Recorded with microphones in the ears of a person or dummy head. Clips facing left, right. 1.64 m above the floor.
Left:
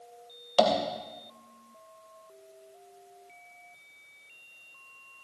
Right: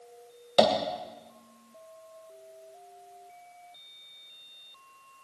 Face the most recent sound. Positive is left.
turn(degrees=-25)  # may be behind; listen again after turning